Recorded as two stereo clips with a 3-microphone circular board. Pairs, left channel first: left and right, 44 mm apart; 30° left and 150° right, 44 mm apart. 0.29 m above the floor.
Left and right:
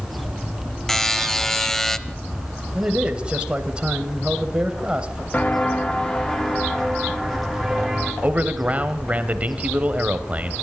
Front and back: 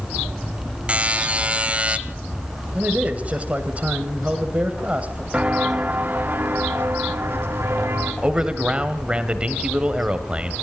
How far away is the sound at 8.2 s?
About 1.7 m.